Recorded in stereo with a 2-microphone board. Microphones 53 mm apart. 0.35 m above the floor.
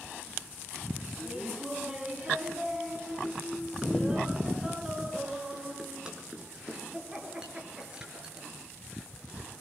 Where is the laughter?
15° right (ahead or behind), 3 m.